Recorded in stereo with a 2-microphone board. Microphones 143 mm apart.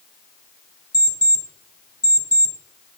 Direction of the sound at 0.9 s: 30° right (ahead or behind).